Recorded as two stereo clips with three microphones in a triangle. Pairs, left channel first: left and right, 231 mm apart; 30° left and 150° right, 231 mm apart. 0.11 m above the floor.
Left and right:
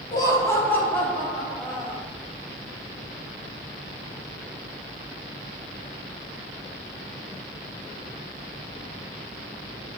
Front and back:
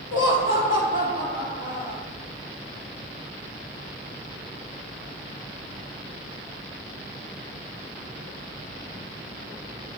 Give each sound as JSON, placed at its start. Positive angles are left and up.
{"t": 0.1, "sound": "laughter", "azimuth_deg": 20, "distance_m": 3.0}